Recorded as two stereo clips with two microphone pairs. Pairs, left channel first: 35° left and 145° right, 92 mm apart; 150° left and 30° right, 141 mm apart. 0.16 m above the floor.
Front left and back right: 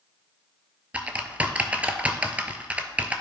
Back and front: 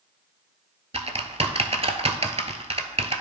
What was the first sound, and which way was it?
Typing on a keyboard, 70° right.